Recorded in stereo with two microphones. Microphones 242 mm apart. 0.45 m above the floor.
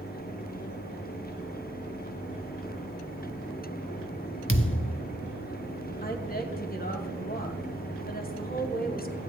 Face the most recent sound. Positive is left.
turn(degrees=35)  # may be behind; listen again after turning